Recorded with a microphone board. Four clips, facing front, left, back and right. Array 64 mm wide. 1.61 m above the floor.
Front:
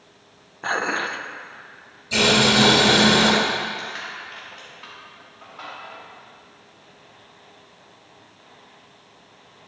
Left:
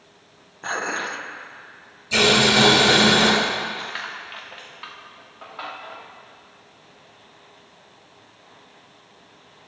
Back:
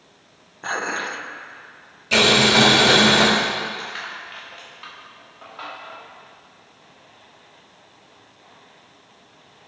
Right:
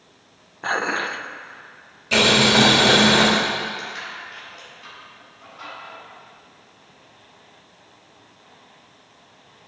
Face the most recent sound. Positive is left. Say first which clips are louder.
# left 1 dB, back 1 dB
turn(degrees=100)